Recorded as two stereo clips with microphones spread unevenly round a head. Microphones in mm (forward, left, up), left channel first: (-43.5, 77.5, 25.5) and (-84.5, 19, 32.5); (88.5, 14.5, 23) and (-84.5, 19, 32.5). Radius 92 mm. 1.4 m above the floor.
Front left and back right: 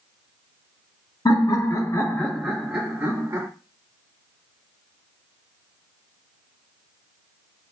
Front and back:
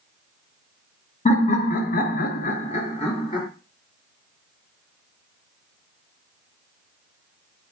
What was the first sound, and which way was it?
Laughter, 45° left.